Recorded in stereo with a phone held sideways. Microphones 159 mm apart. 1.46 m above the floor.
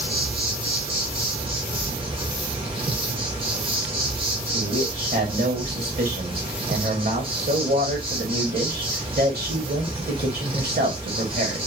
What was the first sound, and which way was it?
An insect, 35° right (ahead or behind).